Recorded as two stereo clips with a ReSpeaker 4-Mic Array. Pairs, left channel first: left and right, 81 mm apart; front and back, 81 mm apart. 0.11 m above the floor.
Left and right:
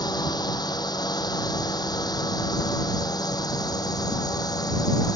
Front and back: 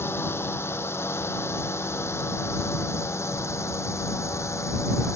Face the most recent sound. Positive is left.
turn(degrees=55)